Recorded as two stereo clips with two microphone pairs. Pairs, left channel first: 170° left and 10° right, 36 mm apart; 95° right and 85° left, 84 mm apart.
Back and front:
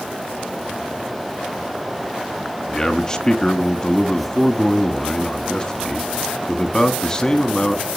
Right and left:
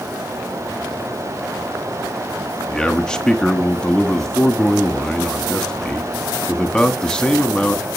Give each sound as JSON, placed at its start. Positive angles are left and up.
{"t": 2.7, "sound": "a man speaking", "azimuth_deg": -160, "distance_m": 1.1}